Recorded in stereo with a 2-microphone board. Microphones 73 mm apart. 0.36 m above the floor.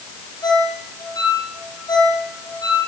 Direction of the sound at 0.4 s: 65° left (ahead or behind).